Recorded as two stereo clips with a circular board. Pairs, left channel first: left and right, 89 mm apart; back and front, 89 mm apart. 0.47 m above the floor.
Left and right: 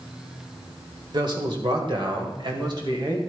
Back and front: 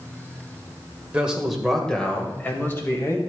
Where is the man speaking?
75° right, 1.9 m; by 3.2 s 125° right, 3 m.